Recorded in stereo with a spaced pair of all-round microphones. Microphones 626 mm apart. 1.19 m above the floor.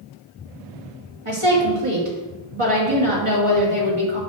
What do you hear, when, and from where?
1.2 s a woman speaking: 50° right (ahead or behind), 2.5 m